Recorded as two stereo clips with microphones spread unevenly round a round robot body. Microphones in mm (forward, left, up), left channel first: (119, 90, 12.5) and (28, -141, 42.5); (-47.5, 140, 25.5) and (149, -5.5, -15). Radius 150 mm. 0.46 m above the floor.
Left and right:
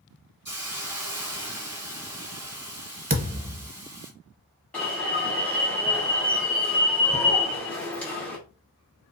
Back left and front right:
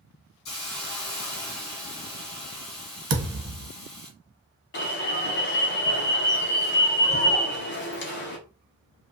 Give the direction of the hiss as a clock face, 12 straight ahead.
6 o'clock.